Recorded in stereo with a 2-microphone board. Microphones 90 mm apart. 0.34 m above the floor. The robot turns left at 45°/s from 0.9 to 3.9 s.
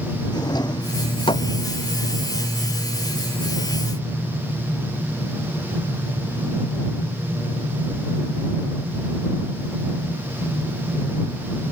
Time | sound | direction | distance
0.3 | a drawer | 45° left (ahead or behind) | ?